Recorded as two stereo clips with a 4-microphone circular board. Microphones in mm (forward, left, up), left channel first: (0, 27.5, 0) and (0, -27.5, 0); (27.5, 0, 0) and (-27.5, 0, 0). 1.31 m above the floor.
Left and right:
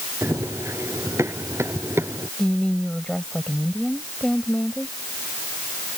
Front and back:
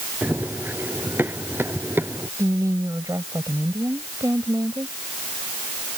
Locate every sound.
0.2 s running footsteps: 125° right; by 2.3 s 130° right
2.4 s a woman speaking: 170° left